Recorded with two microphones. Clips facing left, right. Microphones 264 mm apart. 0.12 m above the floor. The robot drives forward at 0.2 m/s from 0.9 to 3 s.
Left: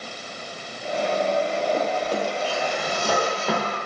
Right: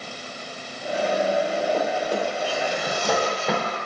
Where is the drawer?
10° left (ahead or behind), 1.5 m; by 3.8 s 5° left (ahead or behind), 1.7 m.